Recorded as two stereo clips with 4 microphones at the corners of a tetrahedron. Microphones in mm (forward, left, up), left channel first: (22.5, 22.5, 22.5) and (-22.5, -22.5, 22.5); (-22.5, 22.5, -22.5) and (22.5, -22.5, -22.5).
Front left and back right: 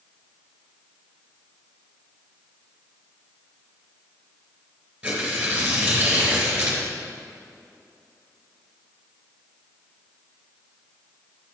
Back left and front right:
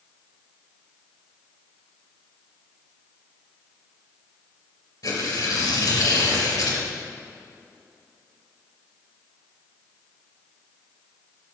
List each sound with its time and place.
5.0 s tearing paper: 150° left, 4 m